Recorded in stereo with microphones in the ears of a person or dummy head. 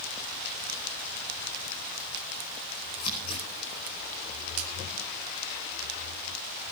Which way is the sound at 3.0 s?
50° left (ahead or behind).